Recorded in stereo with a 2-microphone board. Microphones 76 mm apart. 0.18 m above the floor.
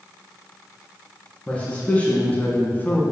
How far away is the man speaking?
About 2.5 m.